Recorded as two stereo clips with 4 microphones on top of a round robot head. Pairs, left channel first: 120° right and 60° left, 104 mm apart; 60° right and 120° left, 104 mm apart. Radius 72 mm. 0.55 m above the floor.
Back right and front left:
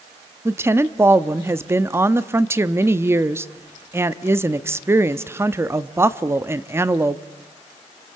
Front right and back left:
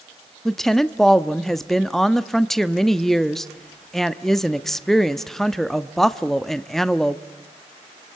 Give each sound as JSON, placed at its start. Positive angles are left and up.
{"t": 0.5, "sound": "a woman speaking", "azimuth_deg": 25, "distance_m": 0.6}